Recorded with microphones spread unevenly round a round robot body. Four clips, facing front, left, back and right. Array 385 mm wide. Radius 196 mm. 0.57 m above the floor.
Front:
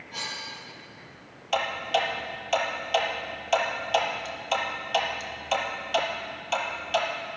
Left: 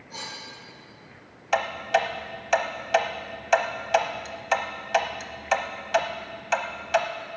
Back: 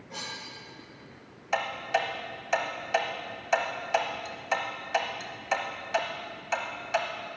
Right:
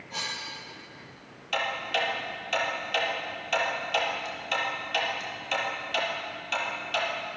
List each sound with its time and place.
0.1 s cutlery clinking: 170° left, 5.5 m
1.5 s ticking: 60° left, 1.0 m